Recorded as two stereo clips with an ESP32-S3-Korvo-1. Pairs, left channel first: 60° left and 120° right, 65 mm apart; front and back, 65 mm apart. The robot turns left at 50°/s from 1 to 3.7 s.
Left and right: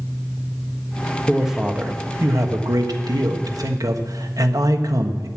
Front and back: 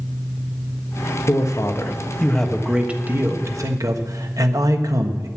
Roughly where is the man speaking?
Ahead right.